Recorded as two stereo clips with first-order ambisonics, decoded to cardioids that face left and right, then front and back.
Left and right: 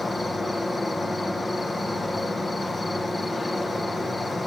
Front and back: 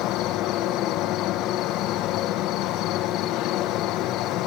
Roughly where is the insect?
Ahead.